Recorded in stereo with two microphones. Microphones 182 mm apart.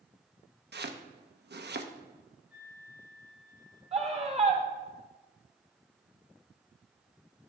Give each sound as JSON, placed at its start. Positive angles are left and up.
{"t": 0.7, "sound": "chopping", "side_deg": -65, "distance_m": 0.7}
{"t": 2.5, "sound": "a flute", "side_deg": -5, "distance_m": 4.5}
{"t": 3.9, "sound": "a scream", "side_deg": -35, "distance_m": 1.8}